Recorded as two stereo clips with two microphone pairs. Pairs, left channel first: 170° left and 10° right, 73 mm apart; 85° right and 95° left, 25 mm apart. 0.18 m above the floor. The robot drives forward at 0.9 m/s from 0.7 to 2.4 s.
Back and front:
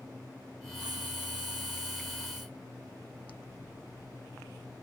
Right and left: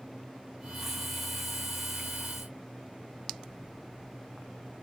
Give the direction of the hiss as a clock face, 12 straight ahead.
12 o'clock.